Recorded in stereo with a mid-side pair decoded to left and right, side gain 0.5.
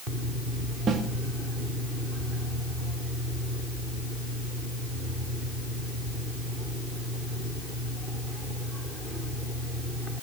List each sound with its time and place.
0.9 s a snare drum: 50° right, 2.5 m